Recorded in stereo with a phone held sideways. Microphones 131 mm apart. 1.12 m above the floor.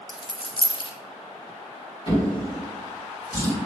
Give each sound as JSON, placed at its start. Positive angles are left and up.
{"t": 0.1, "sound": "a dropped coin", "side_deg": 40, "distance_m": 0.5}
{"t": 2.1, "sound": "a drawer", "side_deg": 45, "distance_m": 1.7}